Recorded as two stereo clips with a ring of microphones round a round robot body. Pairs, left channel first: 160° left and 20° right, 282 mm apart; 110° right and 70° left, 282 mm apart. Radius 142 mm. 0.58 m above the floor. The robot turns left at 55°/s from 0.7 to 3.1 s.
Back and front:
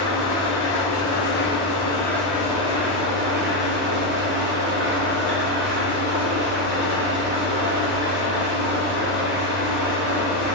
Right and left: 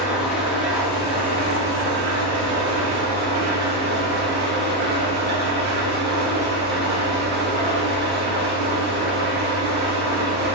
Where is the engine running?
155° left, 1.1 m; by 10.6 s 20° left, 1.1 m.